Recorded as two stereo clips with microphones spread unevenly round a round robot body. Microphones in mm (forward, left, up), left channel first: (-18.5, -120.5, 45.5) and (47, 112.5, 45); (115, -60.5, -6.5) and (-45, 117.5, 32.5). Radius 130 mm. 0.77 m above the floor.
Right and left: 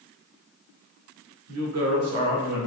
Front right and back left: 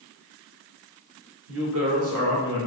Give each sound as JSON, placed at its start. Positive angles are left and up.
{"t": 1.5, "sound": "a woman speaking", "azimuth_deg": 95, "distance_m": 2.0}